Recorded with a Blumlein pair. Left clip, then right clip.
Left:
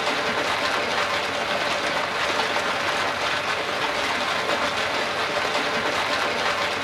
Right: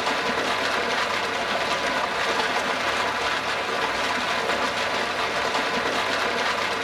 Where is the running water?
Straight ahead, 0.7 m.